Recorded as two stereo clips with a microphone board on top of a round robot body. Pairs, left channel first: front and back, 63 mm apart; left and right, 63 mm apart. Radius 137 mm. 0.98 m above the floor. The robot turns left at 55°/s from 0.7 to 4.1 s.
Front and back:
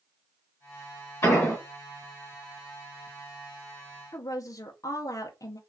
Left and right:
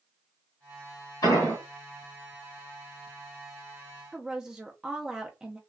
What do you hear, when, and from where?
1.2 s an explosion: 55° left, 1.4 m; by 1.6 s 35° left, 1.4 m
4.1 s a woman speaking: 10° right, 0.5 m